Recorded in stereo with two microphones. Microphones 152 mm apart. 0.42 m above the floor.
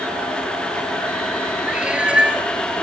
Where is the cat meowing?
5° right (ahead or behind), 1.7 m.